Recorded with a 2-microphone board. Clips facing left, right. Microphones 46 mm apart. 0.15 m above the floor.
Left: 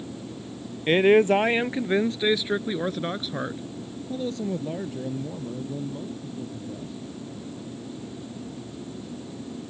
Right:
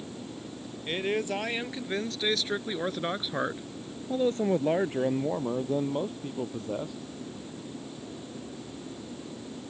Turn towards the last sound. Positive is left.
turn(degrees=-65)  # may be behind; listen again after turning